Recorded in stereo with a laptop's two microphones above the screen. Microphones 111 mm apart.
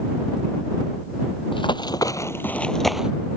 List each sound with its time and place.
1.5 s running footsteps: 45° left (ahead or behind); by 3.1 s 5° right (ahead or behind)